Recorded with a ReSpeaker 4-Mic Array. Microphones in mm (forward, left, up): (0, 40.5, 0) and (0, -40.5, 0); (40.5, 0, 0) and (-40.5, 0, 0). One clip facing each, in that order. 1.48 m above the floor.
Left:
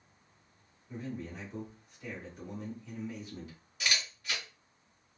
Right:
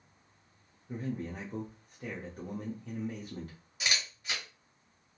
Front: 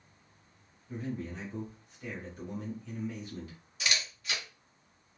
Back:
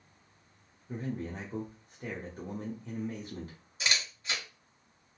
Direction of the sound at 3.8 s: 145° right.